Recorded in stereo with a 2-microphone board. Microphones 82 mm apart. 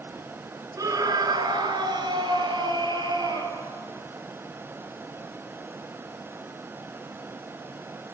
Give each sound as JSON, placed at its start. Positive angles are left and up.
{"t": 0.8, "sound": "a scream", "side_deg": -45, "distance_m": 1.9}